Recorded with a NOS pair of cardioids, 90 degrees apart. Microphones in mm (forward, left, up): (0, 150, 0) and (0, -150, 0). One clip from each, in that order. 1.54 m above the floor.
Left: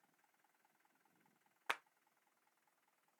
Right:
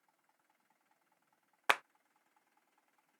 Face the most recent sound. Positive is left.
turn(degrees=-65)